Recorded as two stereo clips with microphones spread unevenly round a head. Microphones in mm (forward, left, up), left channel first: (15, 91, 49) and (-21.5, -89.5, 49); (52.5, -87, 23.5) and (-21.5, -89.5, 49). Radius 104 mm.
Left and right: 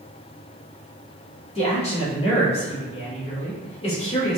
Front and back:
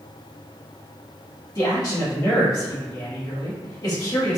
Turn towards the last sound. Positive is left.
turn(degrees=20)